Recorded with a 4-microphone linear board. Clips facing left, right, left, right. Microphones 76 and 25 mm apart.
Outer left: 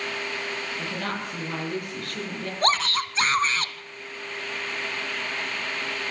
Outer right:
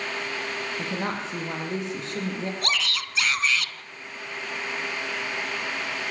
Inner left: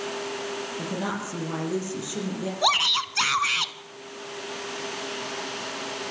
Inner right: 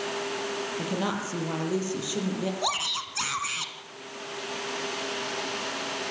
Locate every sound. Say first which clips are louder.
0.8 s a woman speaking: outer right 2 dB, even; 20° right (ahead or behind), 5.5 m
2.6 s a shout: outer left 6 dB, inner left 10 dB; 35° left (ahead or behind), 1.6 m